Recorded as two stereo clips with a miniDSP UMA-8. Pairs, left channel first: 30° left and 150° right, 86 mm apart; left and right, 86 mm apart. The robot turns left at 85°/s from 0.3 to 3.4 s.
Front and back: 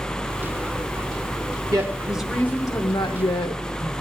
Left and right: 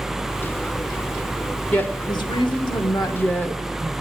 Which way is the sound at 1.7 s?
165° left.